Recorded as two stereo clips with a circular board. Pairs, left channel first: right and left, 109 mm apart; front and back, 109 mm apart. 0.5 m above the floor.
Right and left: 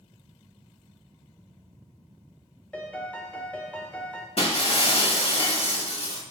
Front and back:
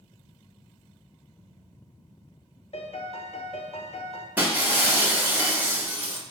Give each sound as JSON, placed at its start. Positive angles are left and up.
{"t": 2.7, "sound": "a piano", "azimuth_deg": -15, "distance_m": 0.5}
{"t": 4.4, "sound": "breaking glass", "azimuth_deg": -110, "distance_m": 0.9}